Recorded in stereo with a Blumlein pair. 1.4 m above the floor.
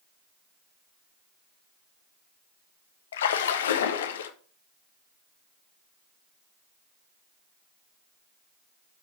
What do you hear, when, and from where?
3.1 s a splash: 60° left, 0.9 m